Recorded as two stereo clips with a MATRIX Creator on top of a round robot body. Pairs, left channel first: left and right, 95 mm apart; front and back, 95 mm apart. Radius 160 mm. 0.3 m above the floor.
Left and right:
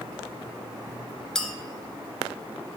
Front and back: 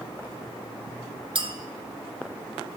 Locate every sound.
1.4 s a clink: 175° left, 0.8 m